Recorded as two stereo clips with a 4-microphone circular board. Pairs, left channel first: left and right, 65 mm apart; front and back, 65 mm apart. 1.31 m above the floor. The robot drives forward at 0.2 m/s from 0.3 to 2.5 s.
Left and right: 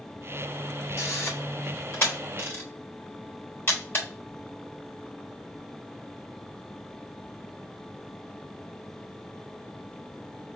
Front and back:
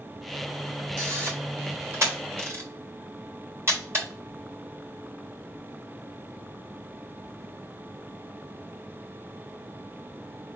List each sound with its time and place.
1.0 s a camera shutter: 130° left, 3 m; by 4.0 s 135° left, 3.5 m